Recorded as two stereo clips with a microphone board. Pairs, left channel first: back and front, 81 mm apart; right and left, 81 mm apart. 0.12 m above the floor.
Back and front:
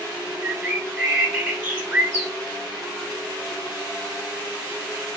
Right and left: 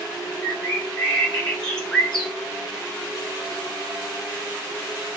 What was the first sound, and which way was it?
A bird, 20° right.